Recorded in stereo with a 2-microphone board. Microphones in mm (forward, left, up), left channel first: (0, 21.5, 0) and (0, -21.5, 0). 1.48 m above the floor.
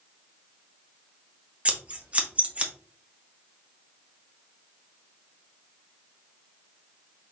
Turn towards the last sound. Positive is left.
turn(degrees=-30)  # may be behind; listen again after turning